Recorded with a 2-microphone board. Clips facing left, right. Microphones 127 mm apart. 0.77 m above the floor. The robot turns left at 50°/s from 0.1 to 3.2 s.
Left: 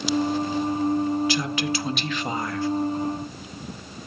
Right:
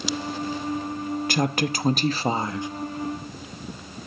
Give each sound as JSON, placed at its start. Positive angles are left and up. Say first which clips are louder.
{"t": 1.3, "sound": "a woman speaking", "louder": "right 1 dB", "azimuth_deg": -90, "distance_m": 0.8}